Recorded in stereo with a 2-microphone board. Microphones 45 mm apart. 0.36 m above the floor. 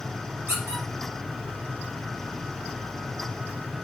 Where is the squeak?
75° right (ahead or behind), 2.5 m.